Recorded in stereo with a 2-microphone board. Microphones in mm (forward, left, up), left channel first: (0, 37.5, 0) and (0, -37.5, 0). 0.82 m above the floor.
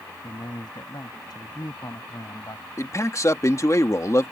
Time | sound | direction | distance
0.2 | a man speaking | 65° left (ahead or behind) | ?
2.8 | a man speaking | 45° left (ahead or behind) | ?